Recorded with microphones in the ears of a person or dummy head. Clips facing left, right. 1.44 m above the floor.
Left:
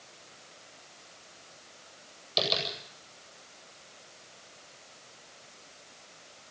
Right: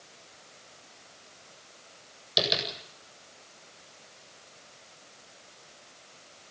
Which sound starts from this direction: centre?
Tapping, at 2.4 s.